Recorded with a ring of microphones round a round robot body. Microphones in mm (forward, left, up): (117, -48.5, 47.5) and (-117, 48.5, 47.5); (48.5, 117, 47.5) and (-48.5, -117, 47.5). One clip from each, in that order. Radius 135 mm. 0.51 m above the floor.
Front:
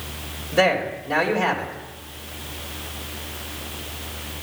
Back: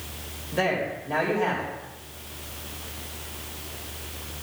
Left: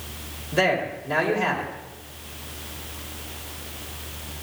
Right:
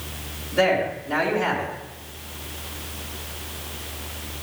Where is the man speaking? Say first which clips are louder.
Front 6 dB, right 2 dB; 50° left, 3 m.